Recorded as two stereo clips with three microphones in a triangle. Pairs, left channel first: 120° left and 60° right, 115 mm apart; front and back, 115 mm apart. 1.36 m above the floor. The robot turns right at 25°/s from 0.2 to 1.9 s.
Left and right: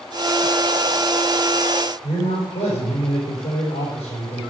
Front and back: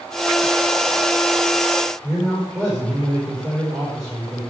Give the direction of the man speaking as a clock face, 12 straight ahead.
8 o'clock.